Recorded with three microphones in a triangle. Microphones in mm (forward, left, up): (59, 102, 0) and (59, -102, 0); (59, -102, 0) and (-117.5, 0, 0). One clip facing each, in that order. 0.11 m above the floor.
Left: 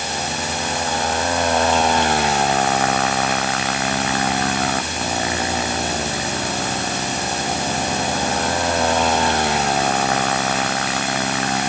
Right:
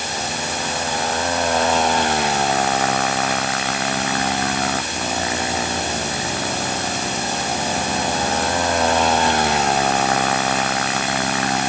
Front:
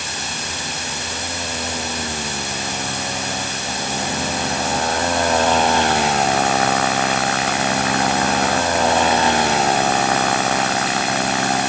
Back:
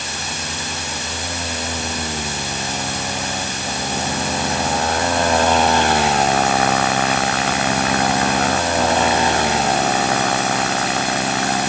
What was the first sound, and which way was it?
Only background noise.